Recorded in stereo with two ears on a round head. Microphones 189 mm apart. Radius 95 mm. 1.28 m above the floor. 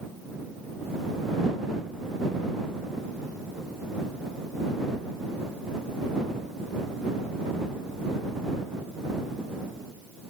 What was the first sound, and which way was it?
Only background noise.